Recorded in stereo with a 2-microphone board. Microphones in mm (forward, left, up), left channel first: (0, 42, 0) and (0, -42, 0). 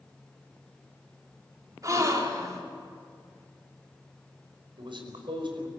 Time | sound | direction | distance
1.8 | a gasp | 45° right (ahead or behind) | 3 m
4.8 | a man speaking | 75° right (ahead or behind) | 5 m